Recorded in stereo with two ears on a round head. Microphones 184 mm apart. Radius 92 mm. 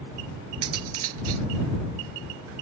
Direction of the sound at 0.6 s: 85° right.